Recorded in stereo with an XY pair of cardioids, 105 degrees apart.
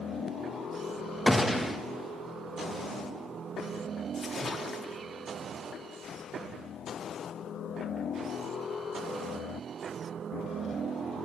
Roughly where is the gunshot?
Ahead.